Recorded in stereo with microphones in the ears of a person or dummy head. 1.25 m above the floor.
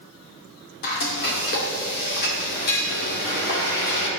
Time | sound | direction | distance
0.8 | frying | 65° left (ahead or behind) | 2 m